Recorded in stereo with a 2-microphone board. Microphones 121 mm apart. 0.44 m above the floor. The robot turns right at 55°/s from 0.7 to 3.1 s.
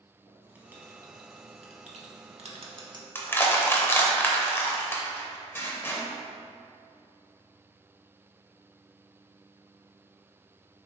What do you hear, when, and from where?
0.3 s writing: 15° right (ahead or behind), 0.6 m; by 3.0 s 30° right (ahead or behind), 0.6 m
3.1 s crushing: 20° left (ahead or behind), 0.5 m